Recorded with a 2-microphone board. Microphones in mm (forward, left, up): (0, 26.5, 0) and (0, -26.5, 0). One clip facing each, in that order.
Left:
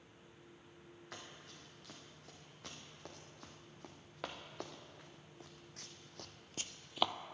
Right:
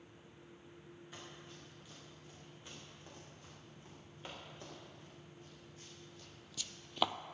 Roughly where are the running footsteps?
Left.